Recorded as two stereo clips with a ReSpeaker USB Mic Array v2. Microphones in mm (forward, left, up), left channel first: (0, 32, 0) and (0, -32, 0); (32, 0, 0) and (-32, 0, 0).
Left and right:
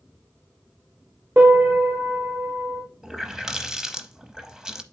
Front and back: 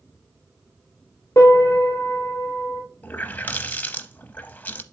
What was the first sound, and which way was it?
A piano, 45° right.